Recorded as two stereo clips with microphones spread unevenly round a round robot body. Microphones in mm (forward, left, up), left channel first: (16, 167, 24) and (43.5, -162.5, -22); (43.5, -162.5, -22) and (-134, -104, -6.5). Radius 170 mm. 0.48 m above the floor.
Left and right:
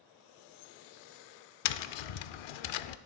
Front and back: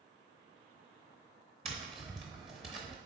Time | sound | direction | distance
1.6 | tapping | 85° left | 0.5 m